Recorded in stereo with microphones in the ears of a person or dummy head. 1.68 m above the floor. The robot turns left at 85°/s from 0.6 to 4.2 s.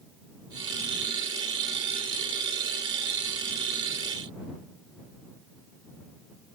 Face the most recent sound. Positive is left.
No sound to turn to.